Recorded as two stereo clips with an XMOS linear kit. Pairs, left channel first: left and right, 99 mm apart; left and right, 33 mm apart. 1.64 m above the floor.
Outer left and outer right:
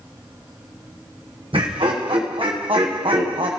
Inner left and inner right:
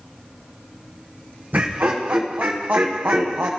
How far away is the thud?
No thud in this recording.